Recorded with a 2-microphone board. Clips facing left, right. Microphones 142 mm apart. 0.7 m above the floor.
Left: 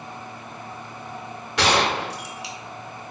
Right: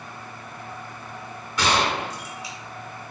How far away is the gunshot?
About 0.7 m.